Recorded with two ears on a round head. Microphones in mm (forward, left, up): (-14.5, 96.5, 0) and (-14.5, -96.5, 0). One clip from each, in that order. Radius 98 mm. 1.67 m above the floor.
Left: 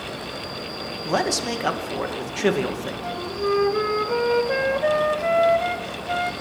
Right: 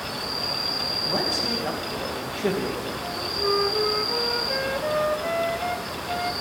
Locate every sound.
0.0 s an insect: 65° right (ahead or behind), 0.9 m
1.1 s a man speaking: 50° left (ahead or behind), 2 m
3.0 s a flute: 25° left (ahead or behind), 1.0 m